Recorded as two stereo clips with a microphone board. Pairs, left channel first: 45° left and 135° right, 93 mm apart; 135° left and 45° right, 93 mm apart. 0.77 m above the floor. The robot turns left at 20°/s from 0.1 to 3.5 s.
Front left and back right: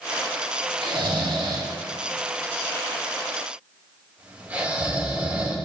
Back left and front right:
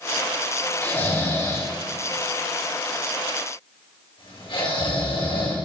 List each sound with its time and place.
0.8 s snoring: 155° right, 3 m; by 5.6 s 155° left, 3 m